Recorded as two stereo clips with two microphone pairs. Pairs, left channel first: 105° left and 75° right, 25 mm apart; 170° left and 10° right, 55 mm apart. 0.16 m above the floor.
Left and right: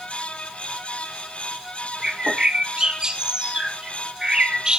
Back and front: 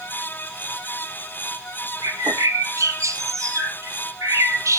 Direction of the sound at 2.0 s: 20° right.